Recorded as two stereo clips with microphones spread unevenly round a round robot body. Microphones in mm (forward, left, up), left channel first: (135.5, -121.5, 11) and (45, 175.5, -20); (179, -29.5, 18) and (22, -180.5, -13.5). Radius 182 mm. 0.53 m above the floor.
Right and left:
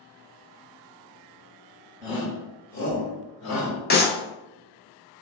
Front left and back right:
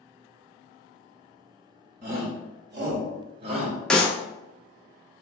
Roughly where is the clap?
Ahead right.